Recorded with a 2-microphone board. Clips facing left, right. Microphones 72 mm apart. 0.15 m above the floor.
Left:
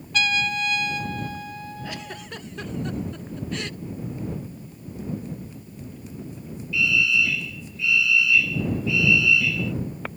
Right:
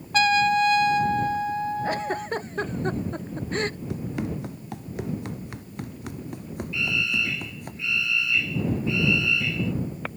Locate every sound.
0.1 s a trumpet: 40° right (ahead or behind)
1.8 s a giggle: 40° right (ahead or behind)
3.9 s running footsteps: 80° right; by 7.7 s 60° right (ahead or behind)
6.7 s a fire alarm: 35° right (ahead or behind)